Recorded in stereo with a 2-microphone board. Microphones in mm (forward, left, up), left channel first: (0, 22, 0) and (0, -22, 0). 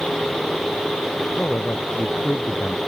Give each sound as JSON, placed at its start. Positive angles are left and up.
{"t": 1.4, "sound": "a man speaking", "side_deg": 40}